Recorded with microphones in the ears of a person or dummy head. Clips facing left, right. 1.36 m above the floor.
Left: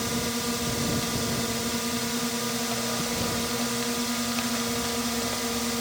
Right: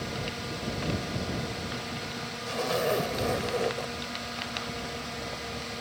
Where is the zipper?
80° right.